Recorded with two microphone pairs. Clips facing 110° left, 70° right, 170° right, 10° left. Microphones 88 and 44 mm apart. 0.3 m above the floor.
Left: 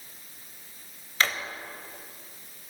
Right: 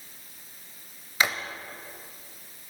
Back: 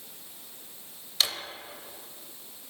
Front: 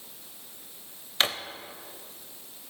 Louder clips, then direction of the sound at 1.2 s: Right 1 dB, front 3 dB; 5° right.